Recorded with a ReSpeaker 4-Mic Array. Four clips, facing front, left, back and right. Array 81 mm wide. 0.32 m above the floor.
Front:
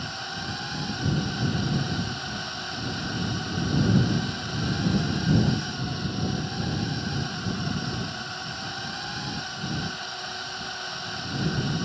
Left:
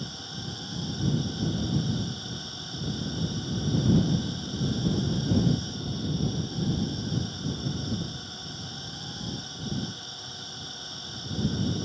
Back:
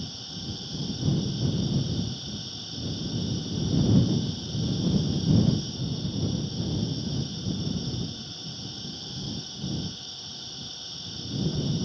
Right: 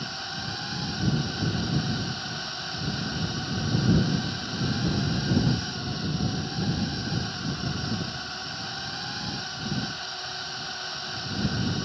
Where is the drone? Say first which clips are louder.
Right 4 dB, front 6 dB; 35° right.